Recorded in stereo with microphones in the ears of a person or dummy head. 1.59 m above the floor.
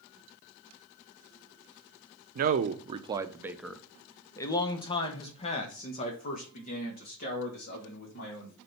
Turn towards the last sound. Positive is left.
turn(degrees=50)  # may be behind; listen again after turning